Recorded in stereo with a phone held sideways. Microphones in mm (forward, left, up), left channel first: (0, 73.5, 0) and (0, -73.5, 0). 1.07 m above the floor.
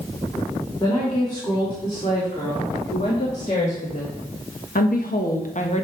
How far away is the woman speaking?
About 3.5 m.